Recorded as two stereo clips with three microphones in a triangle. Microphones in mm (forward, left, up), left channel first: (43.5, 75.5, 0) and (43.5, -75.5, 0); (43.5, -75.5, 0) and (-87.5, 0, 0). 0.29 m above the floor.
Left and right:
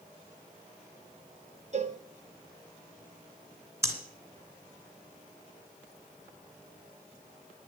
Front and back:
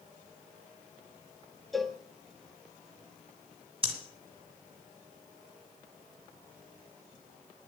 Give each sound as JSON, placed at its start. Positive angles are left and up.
{"t": 1.7, "sound": "a cowbell", "azimuth_deg": -120, "distance_m": 0.6}
{"t": 3.8, "sound": "breathing", "azimuth_deg": -160, "distance_m": 1.9}